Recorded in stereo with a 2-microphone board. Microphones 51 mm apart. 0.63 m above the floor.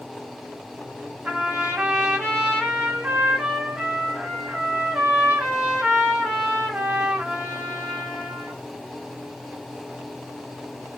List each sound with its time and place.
1.2 s a trumpet: 20° right (ahead or behind), 1.6 m